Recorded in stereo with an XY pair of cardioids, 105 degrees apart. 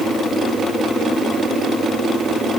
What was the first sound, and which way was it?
Only background noise.